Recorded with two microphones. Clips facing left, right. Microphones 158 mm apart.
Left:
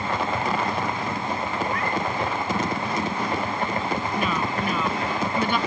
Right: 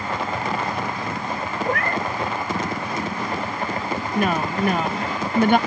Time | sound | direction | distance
1.6 | a cat meowing | 65° right (ahead or behind) | ?
4.2 | a woman speaking | 60° right (ahead or behind) | ?